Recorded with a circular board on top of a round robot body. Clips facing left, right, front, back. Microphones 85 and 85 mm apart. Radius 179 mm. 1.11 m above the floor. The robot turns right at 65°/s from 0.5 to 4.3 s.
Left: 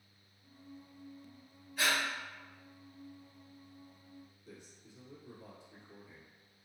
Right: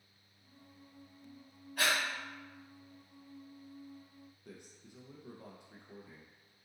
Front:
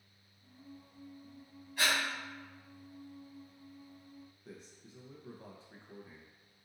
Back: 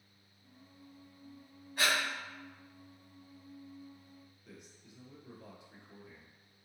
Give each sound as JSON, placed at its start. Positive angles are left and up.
{"t": 1.8, "sound": "breathing", "azimuth_deg": -130, "distance_m": 0.9}
{"t": 4.5, "sound": "a man speaking", "azimuth_deg": -60, "distance_m": 0.8}